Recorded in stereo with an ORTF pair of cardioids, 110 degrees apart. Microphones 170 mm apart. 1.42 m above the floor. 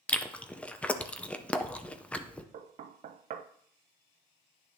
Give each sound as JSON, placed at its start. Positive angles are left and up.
{"t": 0.1, "sound": "chewing", "azimuth_deg": 10, "distance_m": 0.6}
{"t": 2.5, "sound": "knocking", "azimuth_deg": -50, "distance_m": 0.6}